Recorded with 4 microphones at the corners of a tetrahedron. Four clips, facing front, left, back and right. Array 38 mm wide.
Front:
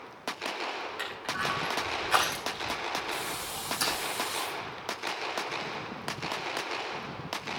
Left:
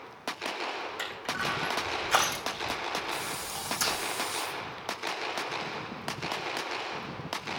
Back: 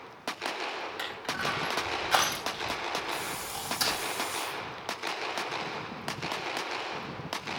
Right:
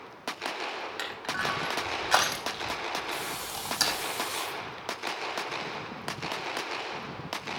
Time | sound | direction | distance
1.0 | crushing | 100° right | 4.5 m
3.1 | a hiss | 50° right | 3.5 m